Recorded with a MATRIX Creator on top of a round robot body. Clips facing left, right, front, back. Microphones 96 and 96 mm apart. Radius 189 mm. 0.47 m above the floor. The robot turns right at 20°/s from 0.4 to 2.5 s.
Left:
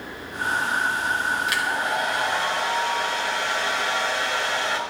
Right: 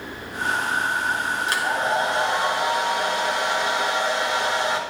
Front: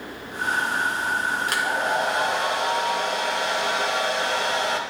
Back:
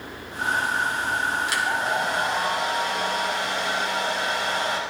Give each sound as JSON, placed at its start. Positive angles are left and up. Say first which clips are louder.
{"t": 1.5, "sound": "a hair dryer", "louder": "right 2 dB, front 1 dB", "azimuth_deg": -40, "distance_m": 3.5}